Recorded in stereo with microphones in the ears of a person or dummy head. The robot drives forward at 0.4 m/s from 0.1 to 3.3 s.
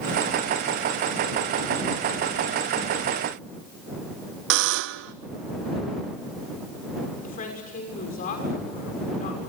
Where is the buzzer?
60° right (ahead or behind), 0.6 m.